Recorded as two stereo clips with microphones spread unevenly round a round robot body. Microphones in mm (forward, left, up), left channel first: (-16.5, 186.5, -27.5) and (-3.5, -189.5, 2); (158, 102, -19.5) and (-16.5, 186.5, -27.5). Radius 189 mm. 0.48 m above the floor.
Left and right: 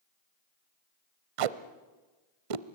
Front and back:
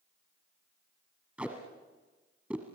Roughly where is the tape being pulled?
Behind right.